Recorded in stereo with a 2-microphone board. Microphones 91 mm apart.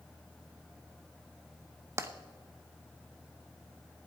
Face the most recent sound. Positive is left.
turn(degrees=-30)  # may be behind; listen again after turning